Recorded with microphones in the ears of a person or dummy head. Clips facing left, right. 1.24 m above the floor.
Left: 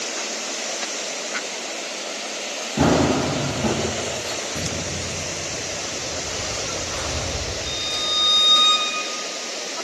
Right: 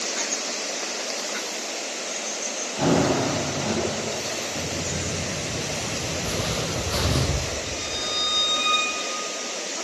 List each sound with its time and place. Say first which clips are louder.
2.8 s running footsteps: left 3 dB; 70° left (ahead or behind), 6.5 m
4.5 s footsteps: left 1 dB; 15° left (ahead or behind), 1.2 m; by 7.2 s 50° right (ahead or behind), 4 m
6.2 s footsteps: right 2 dB; 45° right (ahead or behind), 2.0 m; by 7.6 s 65° right (ahead or behind), 3 m
7.7 s a violin: even; 45° left (ahead or behind), 3.5 m